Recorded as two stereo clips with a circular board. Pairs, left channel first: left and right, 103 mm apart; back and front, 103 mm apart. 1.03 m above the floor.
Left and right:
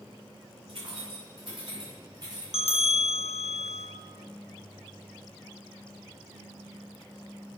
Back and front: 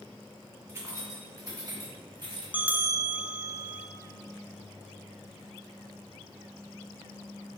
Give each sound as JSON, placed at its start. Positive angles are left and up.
{"t": 0.7, "sound": "keys jangling", "azimuth_deg": -60, "distance_m": 3.0}
{"t": 2.5, "sound": "a bell", "azimuth_deg": 75, "distance_m": 0.6}